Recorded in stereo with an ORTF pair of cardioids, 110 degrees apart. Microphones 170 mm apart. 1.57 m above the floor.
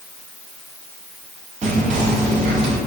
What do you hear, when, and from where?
1.6 s whispering: 45° right, 0.7 m